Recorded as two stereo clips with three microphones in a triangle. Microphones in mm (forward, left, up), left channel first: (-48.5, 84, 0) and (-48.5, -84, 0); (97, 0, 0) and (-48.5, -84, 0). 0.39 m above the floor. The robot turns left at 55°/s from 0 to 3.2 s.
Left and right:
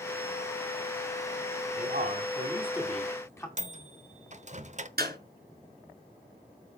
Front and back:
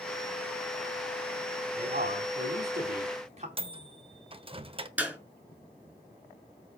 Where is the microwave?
105° right, 0.9 m.